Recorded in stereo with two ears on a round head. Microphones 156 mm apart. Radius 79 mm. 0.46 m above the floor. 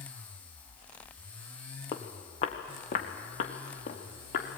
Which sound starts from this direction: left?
Footsteps, at 1.9 s.